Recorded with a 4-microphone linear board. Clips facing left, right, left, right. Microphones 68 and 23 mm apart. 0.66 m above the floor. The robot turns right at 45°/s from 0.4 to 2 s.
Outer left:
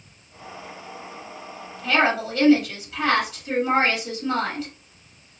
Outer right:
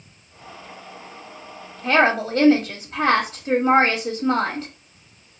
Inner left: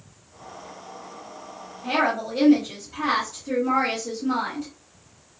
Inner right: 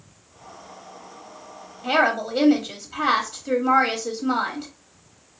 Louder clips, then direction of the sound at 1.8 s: Outer right 3 dB, inner right 3 dB; 40° right (ahead or behind).